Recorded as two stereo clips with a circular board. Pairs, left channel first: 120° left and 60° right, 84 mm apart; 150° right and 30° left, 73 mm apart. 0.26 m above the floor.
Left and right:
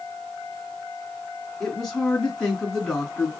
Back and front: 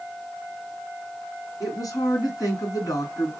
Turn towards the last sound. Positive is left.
turn(degrees=-155)